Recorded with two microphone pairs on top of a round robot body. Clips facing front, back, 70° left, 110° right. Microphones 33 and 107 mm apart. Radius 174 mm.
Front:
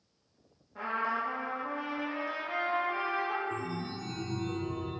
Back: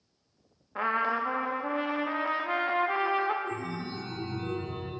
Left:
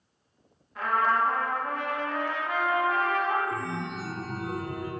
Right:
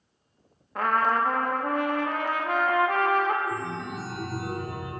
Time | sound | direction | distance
0.8 | a trumpet | 145° right | 0.9 m
3.5 | a chime | 170° right | 2.5 m